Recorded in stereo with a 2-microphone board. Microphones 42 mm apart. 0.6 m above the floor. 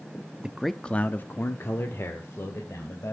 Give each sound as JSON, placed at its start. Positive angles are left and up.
{"t": 0.4, "sound": "a man speaking", "side_deg": -20, "distance_m": 0.6}